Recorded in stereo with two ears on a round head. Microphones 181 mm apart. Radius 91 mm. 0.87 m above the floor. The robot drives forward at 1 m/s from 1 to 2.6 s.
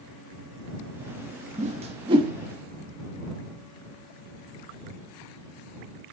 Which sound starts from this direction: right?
A whoosh, at 1.6 s.